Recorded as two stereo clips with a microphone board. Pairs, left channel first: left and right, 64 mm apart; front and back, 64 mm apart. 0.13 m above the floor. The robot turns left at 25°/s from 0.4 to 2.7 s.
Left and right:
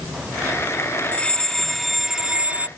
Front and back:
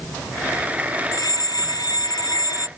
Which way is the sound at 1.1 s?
20° left.